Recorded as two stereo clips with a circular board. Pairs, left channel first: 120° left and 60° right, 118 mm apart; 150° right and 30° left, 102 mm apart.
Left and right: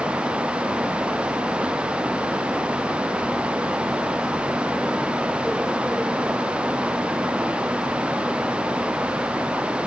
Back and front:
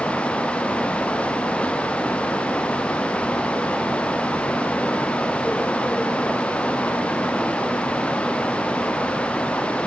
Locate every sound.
Only background noise.